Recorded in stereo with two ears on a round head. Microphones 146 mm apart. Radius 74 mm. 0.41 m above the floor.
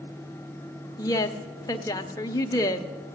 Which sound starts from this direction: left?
A woman speaking, at 1.0 s.